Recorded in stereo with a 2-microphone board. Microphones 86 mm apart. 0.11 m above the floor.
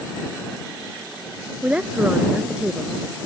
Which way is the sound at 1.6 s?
15° right (ahead or behind).